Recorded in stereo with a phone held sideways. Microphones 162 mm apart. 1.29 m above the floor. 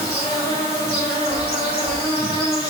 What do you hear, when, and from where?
0.0 s an insect: 75° left (ahead or behind), 1.8 m
1.3 s a chime: 25° left (ahead or behind), 1.5 m